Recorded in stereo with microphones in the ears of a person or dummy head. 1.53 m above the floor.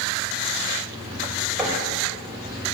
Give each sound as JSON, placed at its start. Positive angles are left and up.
{"t": 1.6, "sound": "knocking", "side_deg": -5, "distance_m": 4.5}